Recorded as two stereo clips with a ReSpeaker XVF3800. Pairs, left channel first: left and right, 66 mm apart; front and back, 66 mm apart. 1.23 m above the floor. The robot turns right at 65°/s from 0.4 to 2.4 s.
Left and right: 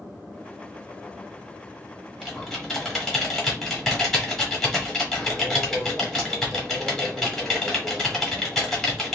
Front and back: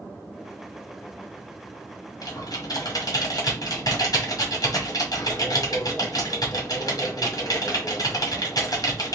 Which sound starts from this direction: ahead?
Typing on a keyboard, at 2.2 s.